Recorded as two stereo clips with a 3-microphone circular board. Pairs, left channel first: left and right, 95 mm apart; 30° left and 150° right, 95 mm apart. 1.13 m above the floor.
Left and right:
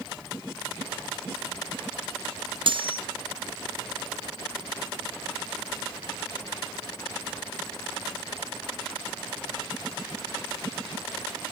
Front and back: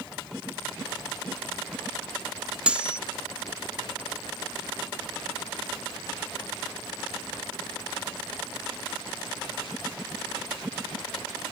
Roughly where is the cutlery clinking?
Right.